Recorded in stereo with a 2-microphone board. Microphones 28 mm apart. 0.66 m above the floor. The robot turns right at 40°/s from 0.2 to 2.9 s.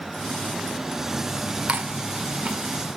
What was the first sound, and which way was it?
Chewing, 65° right (ahead or behind).